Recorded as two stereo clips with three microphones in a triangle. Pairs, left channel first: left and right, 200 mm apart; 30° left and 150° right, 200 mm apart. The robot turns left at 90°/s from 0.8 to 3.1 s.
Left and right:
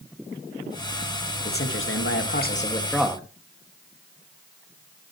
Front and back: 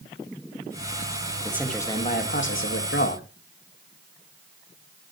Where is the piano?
No piano in this recording.